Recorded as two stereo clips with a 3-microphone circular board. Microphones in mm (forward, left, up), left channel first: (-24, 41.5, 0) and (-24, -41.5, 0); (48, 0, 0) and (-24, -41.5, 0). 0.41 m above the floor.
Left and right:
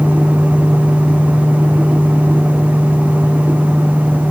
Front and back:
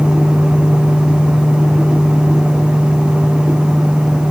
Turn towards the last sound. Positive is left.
No sound to turn to.